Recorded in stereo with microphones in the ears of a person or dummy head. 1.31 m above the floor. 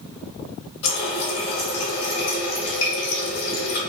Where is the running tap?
65° left (ahead or behind), 1.2 m.